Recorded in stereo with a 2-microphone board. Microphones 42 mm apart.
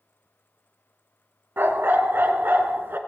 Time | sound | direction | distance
1.6 | a dog barking | 60° right (ahead or behind) | 1.3 m